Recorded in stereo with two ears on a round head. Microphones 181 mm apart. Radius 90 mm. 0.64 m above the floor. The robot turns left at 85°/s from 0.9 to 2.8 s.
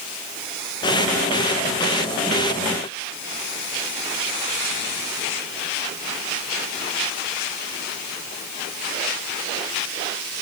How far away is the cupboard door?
I don't hear a cupboard door.